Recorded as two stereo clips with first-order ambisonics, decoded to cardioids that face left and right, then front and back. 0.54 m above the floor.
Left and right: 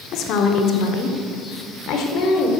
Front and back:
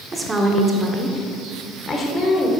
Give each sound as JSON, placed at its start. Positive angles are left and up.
{"t": 0.1, "sound": "a woman speaking", "azimuth_deg": 110, "distance_m": 1.2}